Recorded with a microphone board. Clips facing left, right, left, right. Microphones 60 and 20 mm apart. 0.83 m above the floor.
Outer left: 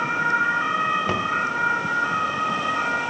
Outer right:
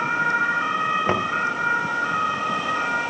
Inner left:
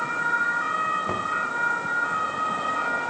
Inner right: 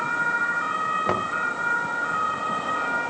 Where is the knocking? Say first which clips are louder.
Outer right 1 dB, inner right 2 dB; 30° right (ahead or behind), 0.7 m.